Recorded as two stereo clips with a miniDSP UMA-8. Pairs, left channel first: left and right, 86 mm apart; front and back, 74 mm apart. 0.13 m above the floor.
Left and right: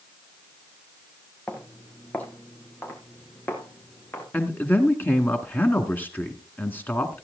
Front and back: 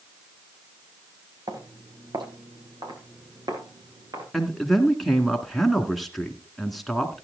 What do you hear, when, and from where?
1.5 s footsteps: 165° left, 3.5 m; by 4.2 s 155° left, 5 m
4.3 s a man speaking: 85° left, 1.4 m